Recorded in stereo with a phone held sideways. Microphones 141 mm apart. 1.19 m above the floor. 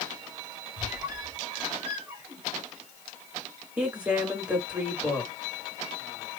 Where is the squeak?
15° right (ahead or behind), 2.5 m.